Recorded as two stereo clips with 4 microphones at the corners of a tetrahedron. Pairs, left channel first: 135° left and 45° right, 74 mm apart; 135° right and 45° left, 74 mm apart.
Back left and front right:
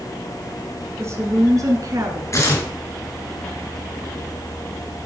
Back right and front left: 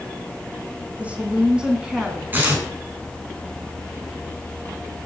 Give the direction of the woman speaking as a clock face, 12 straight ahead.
1 o'clock.